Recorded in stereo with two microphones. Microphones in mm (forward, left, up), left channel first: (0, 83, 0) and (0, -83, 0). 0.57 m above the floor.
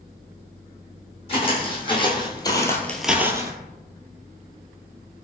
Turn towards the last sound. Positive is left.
turn(degrees=-20)  # may be behind; listen again after turning